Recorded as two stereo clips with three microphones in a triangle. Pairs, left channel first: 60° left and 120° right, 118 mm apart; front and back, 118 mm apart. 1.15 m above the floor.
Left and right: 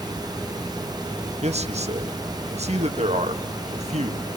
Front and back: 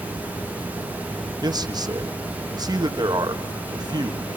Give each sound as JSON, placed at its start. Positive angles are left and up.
{"t": 1.4, "sound": "a man speaking", "azimuth_deg": -130, "distance_m": 1.8}